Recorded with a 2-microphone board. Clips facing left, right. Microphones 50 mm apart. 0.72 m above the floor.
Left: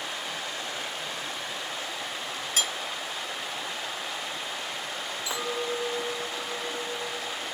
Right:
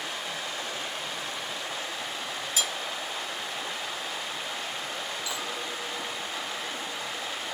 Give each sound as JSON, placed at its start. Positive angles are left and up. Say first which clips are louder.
{"t": 2.6, "sound": "cutlery clinking", "louder": "left 1 dB", "side_deg": 50, "distance_m": 0.8}
{"t": 5.3, "sound": "a clink", "louder": "left 4 dB", "side_deg": 30, "distance_m": 1.4}